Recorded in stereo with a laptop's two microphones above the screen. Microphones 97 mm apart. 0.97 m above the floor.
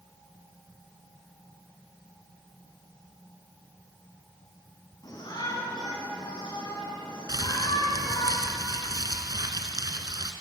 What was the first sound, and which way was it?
A shout, 45° left (ahead or behind).